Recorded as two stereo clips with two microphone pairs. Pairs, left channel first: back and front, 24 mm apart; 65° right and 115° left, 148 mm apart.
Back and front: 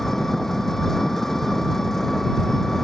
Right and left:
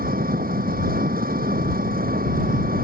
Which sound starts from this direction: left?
An engine running, at 0.0 s.